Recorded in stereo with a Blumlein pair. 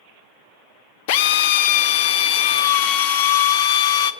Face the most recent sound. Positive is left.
turn(degrees=50)